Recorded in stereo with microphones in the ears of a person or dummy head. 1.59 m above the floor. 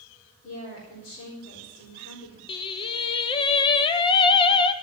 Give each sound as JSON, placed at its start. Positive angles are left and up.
{"t": 0.4, "sound": "a woman speaking", "side_deg": 60, "distance_m": 4.5}
{"t": 2.5, "sound": "singing", "side_deg": 30, "distance_m": 0.7}